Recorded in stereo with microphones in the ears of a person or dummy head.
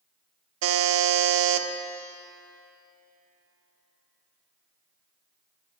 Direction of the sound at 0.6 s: 80° right.